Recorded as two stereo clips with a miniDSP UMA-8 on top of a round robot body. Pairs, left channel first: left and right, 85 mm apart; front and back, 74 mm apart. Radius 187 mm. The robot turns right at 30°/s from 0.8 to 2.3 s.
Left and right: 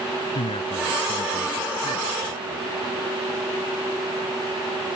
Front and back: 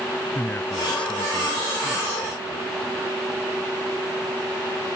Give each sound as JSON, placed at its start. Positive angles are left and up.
{"t": 0.3, "sound": "a man speaking", "azimuth_deg": 70}